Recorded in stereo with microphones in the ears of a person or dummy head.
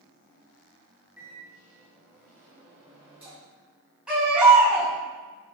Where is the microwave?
10° right (ahead or behind), 3.5 m.